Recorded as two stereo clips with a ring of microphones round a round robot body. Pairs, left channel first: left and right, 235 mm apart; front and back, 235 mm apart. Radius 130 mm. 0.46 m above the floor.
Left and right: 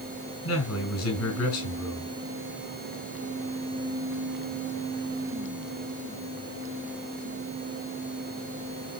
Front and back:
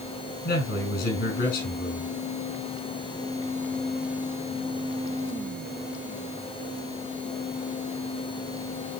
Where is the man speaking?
55° left, 4.5 m.